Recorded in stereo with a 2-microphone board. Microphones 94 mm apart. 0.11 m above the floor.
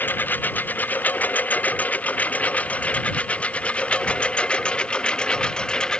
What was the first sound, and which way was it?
A lawn mower, 20° left (ahead or behind).